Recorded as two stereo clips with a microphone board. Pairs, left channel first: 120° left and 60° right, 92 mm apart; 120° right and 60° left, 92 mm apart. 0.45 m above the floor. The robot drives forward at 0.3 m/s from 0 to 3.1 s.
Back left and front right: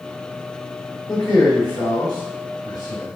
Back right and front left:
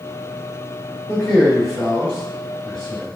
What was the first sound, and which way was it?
A man speaking, 170° left.